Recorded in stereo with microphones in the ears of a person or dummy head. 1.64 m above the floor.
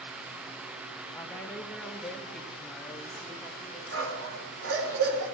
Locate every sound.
1.1 s a woman speaking: 15° left (ahead or behind), 1.3 m; by 3.8 s centre (ahead or behind), 3 m
3.9 s a dog barking: 80° right, 8 m